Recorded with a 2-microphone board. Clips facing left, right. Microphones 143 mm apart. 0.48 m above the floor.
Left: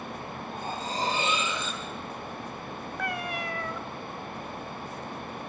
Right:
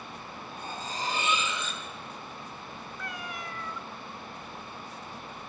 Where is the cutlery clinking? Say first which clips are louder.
Left 4 dB; 30° left (ahead or behind), 9 m.